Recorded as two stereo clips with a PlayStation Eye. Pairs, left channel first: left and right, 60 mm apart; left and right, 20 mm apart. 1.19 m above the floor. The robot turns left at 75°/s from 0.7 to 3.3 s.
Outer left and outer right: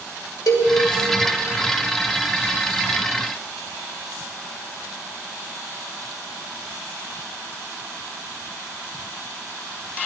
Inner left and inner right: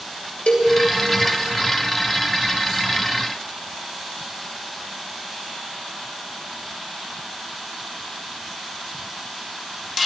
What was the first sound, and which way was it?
A cowbell, 80° left.